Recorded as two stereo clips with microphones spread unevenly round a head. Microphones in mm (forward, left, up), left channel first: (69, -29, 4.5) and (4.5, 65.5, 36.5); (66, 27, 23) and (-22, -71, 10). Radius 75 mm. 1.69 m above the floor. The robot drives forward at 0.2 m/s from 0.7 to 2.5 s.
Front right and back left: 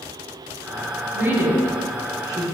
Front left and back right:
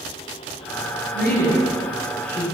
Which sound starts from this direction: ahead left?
A woman speaking, at 1.1 s.